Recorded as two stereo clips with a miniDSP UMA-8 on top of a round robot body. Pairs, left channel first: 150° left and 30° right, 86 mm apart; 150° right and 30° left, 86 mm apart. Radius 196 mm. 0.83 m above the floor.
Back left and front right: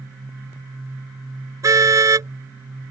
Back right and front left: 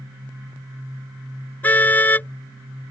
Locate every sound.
1.6 s a car horn: 80° right